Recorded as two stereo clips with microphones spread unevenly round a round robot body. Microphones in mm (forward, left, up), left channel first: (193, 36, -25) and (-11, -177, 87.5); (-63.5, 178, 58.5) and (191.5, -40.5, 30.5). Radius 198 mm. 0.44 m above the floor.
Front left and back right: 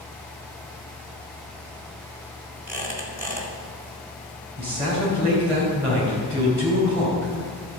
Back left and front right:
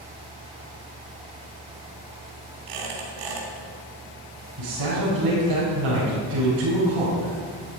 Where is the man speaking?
65° right, 4 m.